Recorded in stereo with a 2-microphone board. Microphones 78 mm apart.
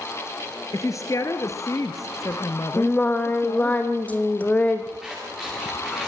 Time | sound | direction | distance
0.7 | a woman speaking | 45° left (ahead or behind) | 2.0 m
2.8 | singing | 20° left (ahead or behind) | 2.5 m
5.0 | scissors | centre (ahead or behind) | 8.5 m